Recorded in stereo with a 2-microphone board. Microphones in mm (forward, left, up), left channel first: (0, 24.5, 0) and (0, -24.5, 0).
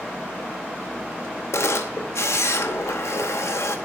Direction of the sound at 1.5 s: 70° left (ahead or behind).